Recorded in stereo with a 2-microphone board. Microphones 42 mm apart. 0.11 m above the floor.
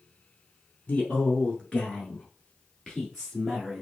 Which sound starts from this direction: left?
A man speaking, at 0.9 s.